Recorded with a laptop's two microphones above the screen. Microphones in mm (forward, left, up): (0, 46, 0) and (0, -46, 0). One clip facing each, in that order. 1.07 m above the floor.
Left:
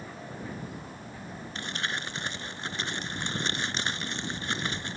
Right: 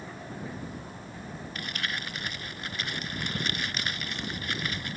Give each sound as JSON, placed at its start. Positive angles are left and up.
{"t": 1.6, "sound": "crumpling", "side_deg": 30}